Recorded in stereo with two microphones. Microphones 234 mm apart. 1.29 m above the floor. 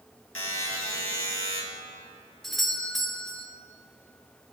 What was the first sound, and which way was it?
A buzzer, 65° left (ahead or behind).